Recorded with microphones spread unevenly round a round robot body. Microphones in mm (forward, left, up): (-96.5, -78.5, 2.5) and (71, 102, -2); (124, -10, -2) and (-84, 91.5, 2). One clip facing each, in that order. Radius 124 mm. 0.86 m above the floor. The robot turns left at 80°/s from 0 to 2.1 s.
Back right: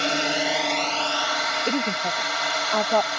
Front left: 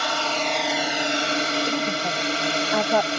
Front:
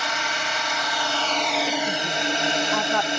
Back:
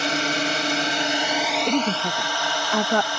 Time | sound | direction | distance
0.0 | a drone | 175° right | ?
1.7 | a woman speaking | 165° left | ?